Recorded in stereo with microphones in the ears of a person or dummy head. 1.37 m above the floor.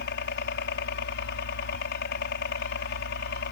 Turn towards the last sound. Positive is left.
turn(degrees=50)  # may be behind; listen again after turning